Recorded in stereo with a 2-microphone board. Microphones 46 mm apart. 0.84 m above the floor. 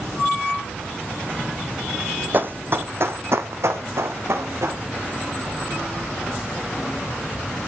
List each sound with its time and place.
2.3 s running footsteps: 45° right (ahead or behind), 1.9 m; by 4.8 s 75° right (ahead or behind), 3.5 m